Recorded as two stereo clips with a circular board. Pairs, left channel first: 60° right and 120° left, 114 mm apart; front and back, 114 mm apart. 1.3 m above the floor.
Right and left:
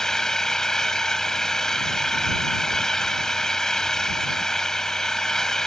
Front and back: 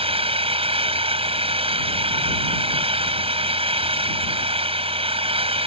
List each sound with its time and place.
0.0 s an engine running: 145° right